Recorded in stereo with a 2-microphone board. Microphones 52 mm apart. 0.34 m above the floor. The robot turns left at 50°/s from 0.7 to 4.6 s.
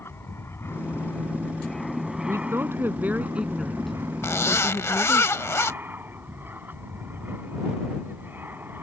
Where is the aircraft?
65° left; by 8.8 s 130° right.